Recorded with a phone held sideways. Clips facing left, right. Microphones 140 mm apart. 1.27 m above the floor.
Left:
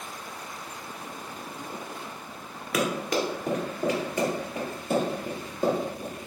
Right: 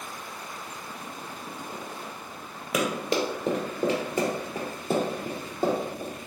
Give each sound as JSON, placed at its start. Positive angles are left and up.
{"t": 2.7, "sound": "running footsteps", "side_deg": -20, "distance_m": 1.3}